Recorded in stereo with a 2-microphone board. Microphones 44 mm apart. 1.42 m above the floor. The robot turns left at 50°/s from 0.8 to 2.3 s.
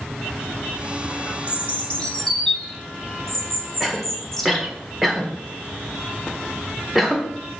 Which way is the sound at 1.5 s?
50° left (ahead or behind).